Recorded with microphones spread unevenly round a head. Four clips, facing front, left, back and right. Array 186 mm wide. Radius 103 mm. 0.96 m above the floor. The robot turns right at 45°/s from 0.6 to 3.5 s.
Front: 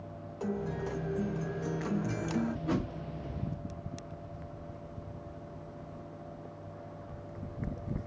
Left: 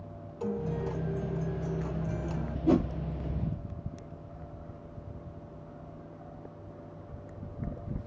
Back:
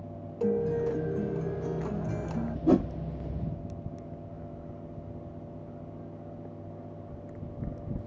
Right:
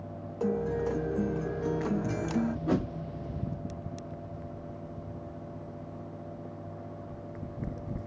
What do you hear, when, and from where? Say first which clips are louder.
0.4 s a guitar: right 4 dB, back 8 dB; 135° right, 0.6 m; by 2.6 s 45° right, 0.6 m
2.7 s a whoosh: left 8 dB, back 15 dB; 175° left, 0.7 m; by 2.9 s 175° right, 0.7 m